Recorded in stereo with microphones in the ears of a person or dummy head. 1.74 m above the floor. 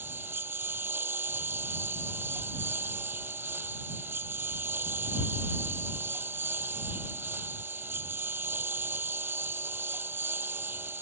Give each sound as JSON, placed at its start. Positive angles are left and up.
{"t": 0.0, "sound": "a lawn mower", "side_deg": -10}